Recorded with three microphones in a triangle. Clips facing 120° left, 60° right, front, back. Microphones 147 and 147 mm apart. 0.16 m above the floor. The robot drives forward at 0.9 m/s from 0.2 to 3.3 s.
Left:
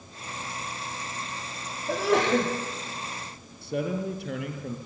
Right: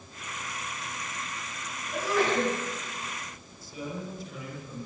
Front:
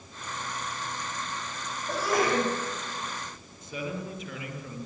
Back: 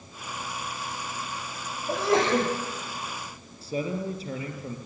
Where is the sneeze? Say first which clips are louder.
Left 4 dB, back 3 dB; 115° left, 7 m; by 2.5 s 120° left, 7.5 m.